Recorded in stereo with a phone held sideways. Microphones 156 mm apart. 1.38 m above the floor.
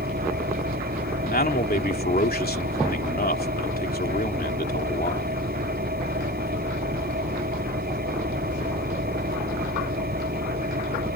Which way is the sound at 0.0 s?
80° right.